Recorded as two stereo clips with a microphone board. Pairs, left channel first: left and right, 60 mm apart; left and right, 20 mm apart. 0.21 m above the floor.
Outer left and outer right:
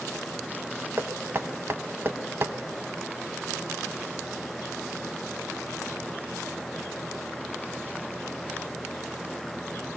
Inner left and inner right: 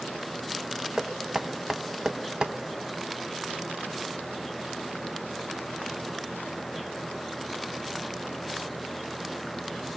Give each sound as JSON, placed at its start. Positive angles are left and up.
{"t": 1.0, "sound": "knocking", "side_deg": -40, "distance_m": 0.8}